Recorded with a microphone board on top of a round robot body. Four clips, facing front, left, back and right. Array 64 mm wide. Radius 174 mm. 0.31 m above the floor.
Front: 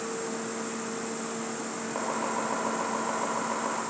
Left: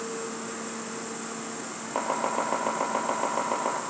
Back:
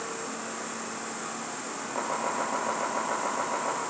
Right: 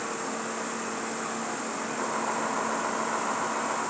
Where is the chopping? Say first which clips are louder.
Left 4 dB, back 1 dB; 85° left, 4.5 m.